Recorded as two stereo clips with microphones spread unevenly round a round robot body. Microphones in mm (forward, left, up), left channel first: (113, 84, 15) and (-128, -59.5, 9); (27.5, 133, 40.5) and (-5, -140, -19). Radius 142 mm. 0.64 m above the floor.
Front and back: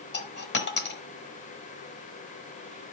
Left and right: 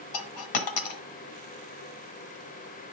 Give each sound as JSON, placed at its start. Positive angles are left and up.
{"t": 0.1, "sound": "a dropped coin", "azimuth_deg": 85, "distance_m": 1.1}